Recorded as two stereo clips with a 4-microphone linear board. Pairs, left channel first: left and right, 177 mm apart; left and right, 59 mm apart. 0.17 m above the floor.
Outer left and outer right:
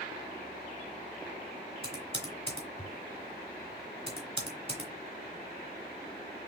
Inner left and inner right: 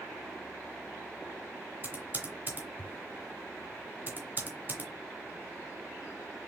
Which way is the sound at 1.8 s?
35° right (ahead or behind).